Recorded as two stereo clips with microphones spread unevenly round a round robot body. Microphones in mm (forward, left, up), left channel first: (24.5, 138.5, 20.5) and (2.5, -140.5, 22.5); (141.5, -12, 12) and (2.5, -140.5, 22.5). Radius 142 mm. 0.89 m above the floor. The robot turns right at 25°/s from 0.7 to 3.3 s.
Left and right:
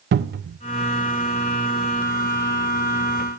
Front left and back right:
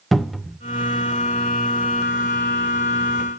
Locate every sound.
0.1 s a cupboard door: 45° right, 0.5 m